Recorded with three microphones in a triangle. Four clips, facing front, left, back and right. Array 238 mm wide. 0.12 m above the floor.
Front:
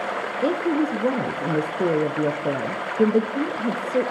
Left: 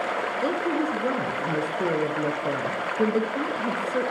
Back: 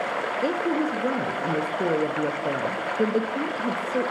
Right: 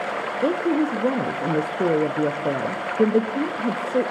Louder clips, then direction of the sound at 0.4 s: Right 6 dB, front 4 dB; 65° right.